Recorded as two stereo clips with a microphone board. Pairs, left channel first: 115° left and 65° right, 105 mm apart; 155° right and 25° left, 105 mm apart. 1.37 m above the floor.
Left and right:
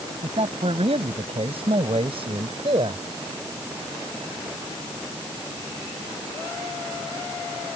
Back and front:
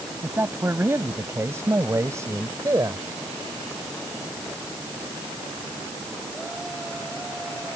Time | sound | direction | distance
0.2 | a man speaking | 45° right | ?